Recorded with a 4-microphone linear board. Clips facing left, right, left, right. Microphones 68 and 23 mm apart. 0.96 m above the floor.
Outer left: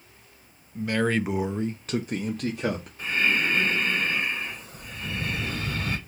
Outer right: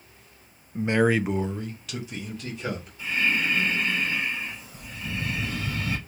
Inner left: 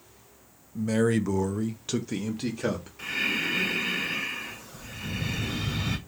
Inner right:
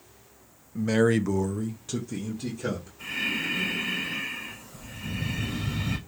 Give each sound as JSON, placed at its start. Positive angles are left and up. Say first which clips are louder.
{"t": 0.8, "sound": "a man speaking", "louder": "outer right 3 dB, inner right 2 dB", "side_deg": -30, "distance_m": 0.6}
{"t": 3.0, "sound": "breathing", "louder": "outer left 1 dB, inner left 2 dB", "side_deg": 55, "distance_m": 3.0}